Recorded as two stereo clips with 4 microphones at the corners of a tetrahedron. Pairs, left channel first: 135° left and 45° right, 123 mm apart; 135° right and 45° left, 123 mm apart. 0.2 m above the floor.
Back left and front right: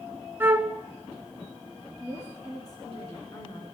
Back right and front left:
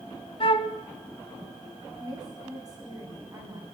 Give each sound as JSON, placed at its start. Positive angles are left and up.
{"t": 0.4, "sound": "a flute", "azimuth_deg": -110, "distance_m": 0.8}
{"t": 2.0, "sound": "a woman speaking", "azimuth_deg": 90, "distance_m": 2.0}